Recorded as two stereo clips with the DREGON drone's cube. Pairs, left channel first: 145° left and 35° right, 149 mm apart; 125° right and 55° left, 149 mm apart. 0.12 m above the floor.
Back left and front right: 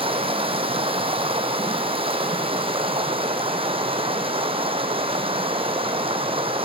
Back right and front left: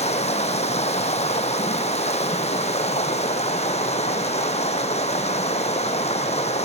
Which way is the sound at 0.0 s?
85° right.